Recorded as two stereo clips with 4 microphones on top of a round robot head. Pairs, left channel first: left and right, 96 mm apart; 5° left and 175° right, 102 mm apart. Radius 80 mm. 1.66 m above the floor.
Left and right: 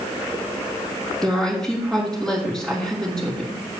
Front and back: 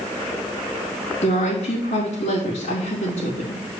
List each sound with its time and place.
1.2 s a woman speaking: 5° left, 2.5 m